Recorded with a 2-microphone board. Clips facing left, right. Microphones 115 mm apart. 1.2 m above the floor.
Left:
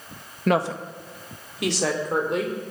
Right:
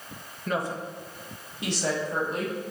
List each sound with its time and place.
0.5 s a woman speaking: 70° left (ahead or behind), 1.3 m; by 2.5 s 85° left, 4.5 m